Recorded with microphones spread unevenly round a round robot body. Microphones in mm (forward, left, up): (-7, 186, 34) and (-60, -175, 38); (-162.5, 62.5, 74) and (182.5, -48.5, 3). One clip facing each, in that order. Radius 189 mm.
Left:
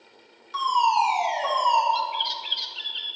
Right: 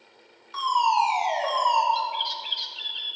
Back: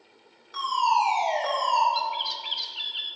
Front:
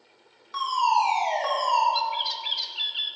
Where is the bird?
45° left, 0.7 m.